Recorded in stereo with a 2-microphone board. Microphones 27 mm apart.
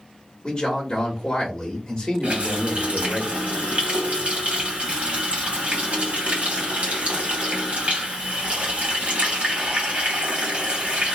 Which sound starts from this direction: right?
A running tap, at 2.2 s.